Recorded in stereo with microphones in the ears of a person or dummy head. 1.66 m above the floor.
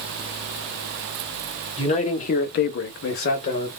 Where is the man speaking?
35° left (ahead or behind), 1.1 m; by 3.7 s 25° left (ahead or behind), 1.0 m.